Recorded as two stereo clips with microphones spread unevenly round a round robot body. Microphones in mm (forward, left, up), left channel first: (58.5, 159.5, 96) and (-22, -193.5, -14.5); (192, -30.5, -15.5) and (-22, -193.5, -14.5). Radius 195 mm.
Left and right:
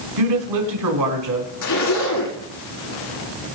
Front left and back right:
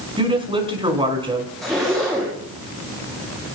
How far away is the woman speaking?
About 5 m.